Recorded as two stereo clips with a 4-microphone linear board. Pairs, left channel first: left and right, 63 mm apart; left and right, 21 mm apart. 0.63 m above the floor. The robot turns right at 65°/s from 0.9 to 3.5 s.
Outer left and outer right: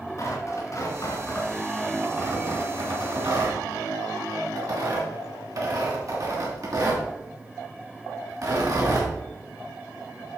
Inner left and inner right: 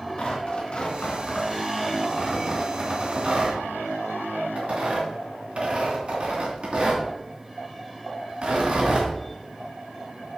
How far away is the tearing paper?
About 3 m.